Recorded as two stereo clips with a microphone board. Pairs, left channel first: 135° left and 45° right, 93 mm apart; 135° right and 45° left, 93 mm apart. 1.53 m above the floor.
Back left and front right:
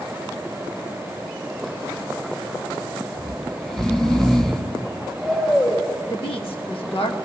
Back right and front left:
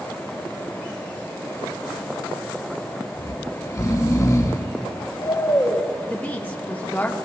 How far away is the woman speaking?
About 1.4 m.